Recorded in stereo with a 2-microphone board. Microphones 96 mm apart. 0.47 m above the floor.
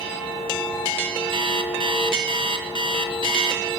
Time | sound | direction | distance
1.3 | an alarm clock | 60° right (ahead or behind) | 4 m